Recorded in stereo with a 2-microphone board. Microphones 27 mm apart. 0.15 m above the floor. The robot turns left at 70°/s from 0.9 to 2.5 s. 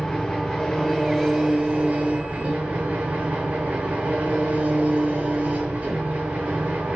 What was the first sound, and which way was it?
An engine running, 10° left.